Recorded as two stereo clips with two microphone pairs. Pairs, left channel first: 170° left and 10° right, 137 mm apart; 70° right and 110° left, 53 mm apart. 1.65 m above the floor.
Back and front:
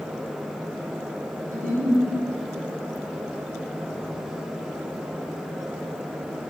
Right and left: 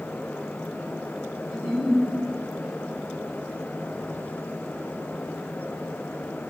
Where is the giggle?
15° left, 2.5 m.